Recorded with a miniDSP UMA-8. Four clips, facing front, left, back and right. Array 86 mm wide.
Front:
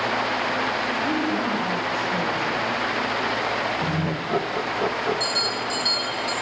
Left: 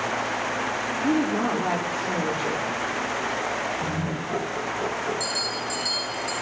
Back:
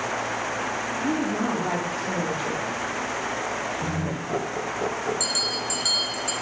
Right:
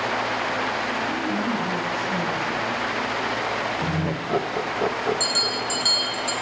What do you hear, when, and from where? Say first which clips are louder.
1.0 s a woman speaking: left 2 dB, back 1 dB; 120° left, 9.5 m
3.8 s laughter: right 2 dB, front 3 dB; 75° right, 1.2 m
5.2 s a bell: right 3 dB, front 3 dB; 110° right, 6 m